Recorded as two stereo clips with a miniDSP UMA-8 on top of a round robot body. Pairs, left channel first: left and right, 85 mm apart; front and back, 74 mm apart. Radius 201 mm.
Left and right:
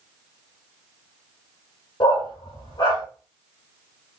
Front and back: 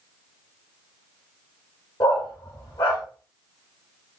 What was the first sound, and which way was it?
A dog barking, 40° left.